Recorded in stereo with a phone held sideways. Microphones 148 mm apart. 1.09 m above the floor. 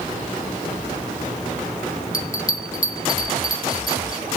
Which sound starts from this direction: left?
A bell, at 2.1 s.